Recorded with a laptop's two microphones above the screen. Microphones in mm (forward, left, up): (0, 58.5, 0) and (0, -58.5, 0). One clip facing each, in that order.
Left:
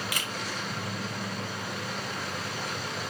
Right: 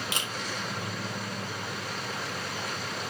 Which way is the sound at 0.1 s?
25° right (ahead or behind).